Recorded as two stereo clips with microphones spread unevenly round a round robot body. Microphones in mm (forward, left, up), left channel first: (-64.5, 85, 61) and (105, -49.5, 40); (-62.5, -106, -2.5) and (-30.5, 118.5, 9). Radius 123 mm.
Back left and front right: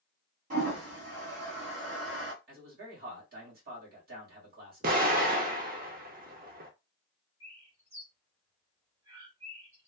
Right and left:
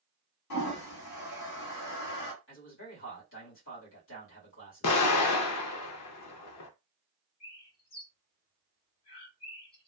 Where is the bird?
115° right, 1.6 m.